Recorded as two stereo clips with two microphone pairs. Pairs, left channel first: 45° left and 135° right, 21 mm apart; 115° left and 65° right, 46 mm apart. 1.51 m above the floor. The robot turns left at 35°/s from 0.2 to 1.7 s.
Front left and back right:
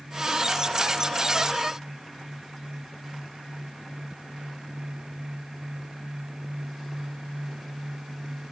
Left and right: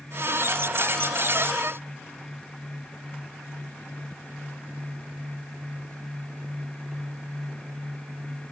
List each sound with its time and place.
Only background noise.